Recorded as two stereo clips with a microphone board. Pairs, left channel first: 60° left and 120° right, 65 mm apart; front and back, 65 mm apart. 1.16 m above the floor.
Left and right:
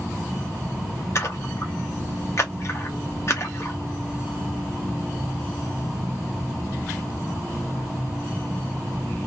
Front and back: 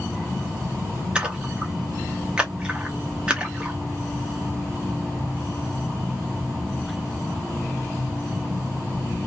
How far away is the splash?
About 0.9 m.